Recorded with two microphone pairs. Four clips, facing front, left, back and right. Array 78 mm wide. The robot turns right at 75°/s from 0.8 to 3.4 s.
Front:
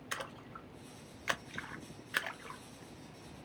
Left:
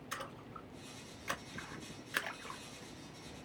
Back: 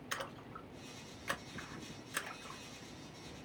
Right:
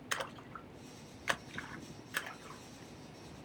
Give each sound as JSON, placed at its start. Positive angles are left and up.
{"t": 0.1, "sound": "a splash", "azimuth_deg": -85, "distance_m": 0.5}